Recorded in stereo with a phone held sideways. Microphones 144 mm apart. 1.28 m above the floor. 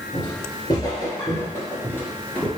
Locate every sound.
0.1 s footsteps: 30° left (ahead or behind), 1.8 m; by 2.5 s 10° left (ahead or behind), 1.2 m